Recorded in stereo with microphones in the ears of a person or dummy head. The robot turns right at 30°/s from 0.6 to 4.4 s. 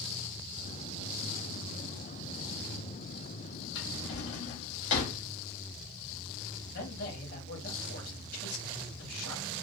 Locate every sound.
3.8 s a drawer: 65° left (ahead or behind), 2 m; by 5.2 s 70° left (ahead or behind), 2 m
6.7 s a man speaking: 65° left (ahead or behind), 1.9 m